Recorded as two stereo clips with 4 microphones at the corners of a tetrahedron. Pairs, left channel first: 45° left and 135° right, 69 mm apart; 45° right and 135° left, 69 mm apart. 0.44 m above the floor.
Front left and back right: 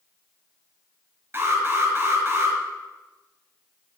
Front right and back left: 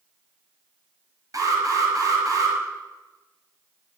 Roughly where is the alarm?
Behind.